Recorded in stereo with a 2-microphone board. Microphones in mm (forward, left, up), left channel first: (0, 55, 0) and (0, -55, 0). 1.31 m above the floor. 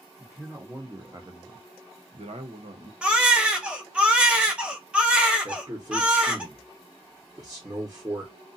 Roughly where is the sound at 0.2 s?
Centre.